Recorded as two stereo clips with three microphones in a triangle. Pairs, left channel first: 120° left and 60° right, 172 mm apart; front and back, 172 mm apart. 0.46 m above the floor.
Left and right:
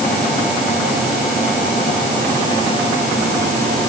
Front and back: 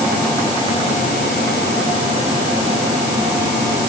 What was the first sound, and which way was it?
Only background noise.